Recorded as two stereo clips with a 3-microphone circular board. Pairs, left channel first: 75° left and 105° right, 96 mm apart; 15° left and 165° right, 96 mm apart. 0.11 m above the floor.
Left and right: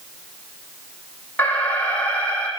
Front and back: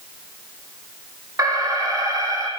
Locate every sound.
1.4 s an alarm: 145° left, 6.5 m